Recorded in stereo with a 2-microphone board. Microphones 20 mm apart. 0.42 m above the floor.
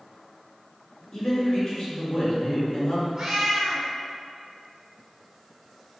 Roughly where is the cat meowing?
Right.